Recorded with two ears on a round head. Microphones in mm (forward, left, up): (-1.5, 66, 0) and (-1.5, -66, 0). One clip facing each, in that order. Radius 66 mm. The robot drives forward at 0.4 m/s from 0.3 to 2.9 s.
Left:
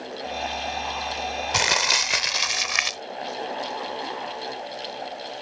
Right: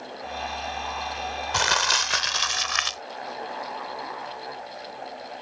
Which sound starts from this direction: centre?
Crumpling, at 1.5 s.